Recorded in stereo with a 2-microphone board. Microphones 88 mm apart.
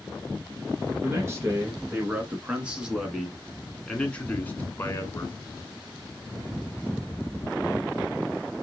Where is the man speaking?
30° right (ahead or behind), 2 m; by 5.4 s 35° left (ahead or behind), 1.7 m.